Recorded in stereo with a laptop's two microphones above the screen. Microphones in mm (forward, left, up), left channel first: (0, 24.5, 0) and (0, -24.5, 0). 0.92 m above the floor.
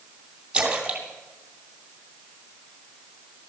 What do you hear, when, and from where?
0.5 s a splash: 20° right (ahead or behind), 2.5 m